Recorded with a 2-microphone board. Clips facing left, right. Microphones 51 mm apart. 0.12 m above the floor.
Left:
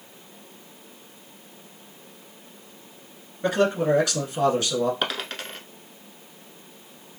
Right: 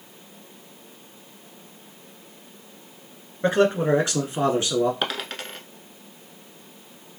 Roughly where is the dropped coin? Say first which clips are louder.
Even; centre.